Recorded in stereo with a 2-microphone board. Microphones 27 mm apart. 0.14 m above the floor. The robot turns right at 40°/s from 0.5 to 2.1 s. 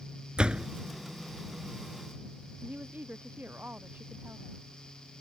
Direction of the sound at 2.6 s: 85° right.